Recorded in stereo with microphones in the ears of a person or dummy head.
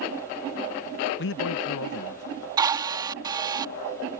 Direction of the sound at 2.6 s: 20° right (ahead or behind).